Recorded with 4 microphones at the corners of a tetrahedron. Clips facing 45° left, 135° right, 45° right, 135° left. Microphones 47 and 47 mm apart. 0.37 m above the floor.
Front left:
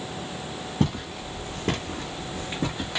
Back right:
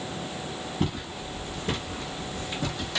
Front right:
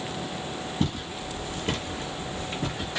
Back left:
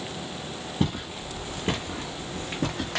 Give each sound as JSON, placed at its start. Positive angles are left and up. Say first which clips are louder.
{"t": 0.8, "sound": "footsteps", "louder": "front left 5 dB, back left 2 dB", "azimuth_deg": 65, "distance_m": 1.5}